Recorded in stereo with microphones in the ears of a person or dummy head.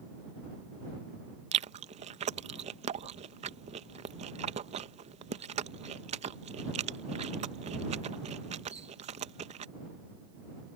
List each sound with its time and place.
1.5 s chewing: 35° right (ahead or behind)